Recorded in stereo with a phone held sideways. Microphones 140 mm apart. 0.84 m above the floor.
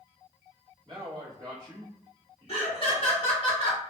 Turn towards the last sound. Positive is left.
turn(degrees=40)  # may be behind; listen again after turning